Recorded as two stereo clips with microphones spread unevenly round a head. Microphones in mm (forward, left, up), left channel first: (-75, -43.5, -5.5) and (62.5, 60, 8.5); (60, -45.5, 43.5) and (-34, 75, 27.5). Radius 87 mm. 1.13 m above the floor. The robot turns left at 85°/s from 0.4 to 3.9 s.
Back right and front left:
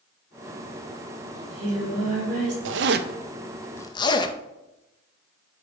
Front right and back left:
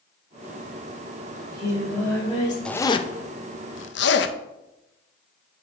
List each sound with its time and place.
1.4 s singing: 85° left, 2.5 m; by 2.5 s 15° right, 2.5 m
2.6 s a zipper: 30° left, 0.5 m; by 4.3 s 75° right, 0.5 m